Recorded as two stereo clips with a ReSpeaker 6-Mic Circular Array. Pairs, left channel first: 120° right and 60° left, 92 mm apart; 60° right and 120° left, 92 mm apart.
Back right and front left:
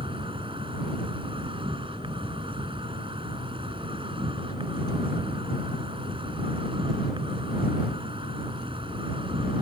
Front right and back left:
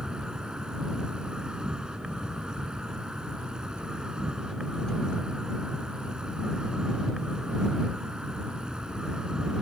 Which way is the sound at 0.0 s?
40° left.